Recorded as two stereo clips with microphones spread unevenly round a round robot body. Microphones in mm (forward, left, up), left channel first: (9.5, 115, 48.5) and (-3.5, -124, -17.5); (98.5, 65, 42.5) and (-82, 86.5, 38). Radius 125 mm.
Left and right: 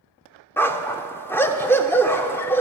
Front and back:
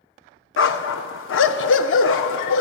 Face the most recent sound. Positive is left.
turn(degrees=10)